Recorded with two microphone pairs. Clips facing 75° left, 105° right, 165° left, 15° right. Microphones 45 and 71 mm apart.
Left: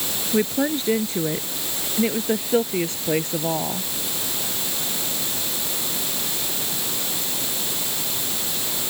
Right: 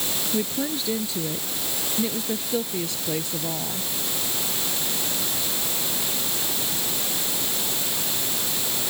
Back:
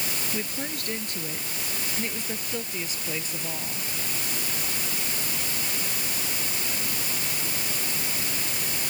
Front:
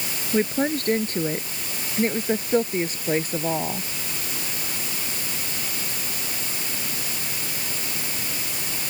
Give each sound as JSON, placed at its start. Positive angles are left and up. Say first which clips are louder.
{"t": 0.3, "sound": "a woman speaking", "louder": "left 7 dB, front 15 dB", "azimuth_deg": 30}